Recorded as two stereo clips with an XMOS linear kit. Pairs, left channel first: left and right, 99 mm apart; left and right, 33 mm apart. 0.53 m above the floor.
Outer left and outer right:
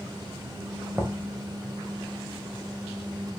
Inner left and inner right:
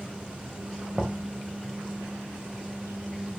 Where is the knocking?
20° right (ahead or behind), 2 m.